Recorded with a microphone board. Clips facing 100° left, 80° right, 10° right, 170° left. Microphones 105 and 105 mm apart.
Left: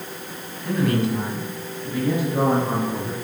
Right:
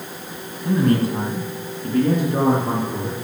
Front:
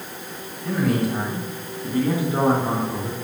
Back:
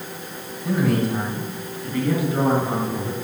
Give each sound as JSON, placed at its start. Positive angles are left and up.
{"t": 0.7, "sound": "a man speaking", "azimuth_deg": -120, "distance_m": 1.6}